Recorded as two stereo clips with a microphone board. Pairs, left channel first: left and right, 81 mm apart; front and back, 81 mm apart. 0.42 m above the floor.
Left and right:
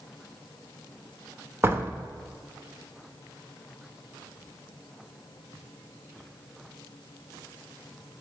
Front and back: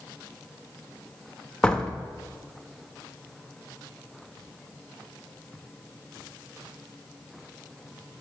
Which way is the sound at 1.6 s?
70° right.